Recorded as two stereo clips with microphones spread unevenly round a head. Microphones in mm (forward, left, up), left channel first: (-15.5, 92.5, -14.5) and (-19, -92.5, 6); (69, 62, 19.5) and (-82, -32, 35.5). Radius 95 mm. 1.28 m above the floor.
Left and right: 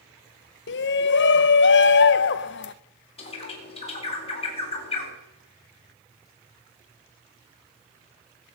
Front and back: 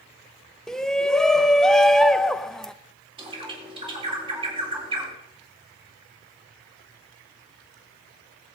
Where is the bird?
150° left, 3.5 m.